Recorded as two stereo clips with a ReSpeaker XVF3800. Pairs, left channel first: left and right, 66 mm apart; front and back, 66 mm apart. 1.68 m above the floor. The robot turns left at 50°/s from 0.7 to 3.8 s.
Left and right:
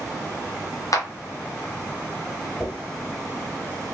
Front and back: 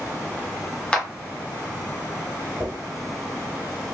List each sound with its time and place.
0.9 s a clap: 75° left, 0.6 m; by 1.1 s 65° left, 0.6 m
2.6 s a dropped coin: 170° left, 1.4 m; by 2.7 s 165° left, 1.4 m